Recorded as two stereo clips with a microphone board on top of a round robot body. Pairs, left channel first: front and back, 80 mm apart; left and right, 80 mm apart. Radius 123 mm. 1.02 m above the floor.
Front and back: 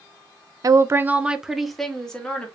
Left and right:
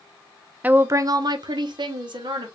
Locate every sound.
0.6 s a woman speaking: 155° right, 0.5 m; by 2.5 s 75° right, 1.2 m